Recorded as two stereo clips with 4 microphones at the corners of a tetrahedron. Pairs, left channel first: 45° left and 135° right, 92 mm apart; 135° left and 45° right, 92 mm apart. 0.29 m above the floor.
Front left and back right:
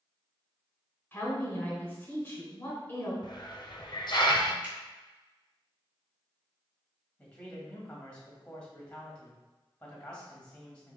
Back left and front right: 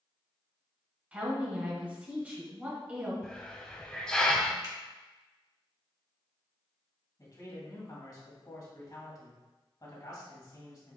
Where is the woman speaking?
10° left, 1.1 m.